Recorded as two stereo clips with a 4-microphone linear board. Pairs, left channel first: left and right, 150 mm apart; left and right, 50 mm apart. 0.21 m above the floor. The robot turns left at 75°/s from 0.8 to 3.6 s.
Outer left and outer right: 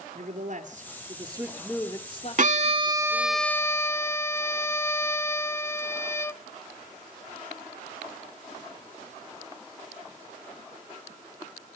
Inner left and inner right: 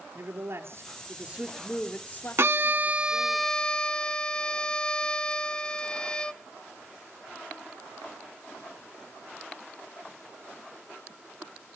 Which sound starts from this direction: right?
A violin, at 2.4 s.